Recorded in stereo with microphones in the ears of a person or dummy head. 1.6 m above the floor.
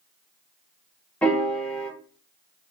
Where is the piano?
5° left (ahead or behind), 0.7 m.